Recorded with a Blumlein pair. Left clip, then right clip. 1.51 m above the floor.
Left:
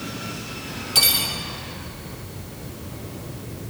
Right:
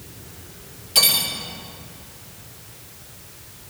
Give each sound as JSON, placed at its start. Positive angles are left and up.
{"t": 0.9, "sound": "cutlery clinking", "azimuth_deg": 5, "distance_m": 3.0}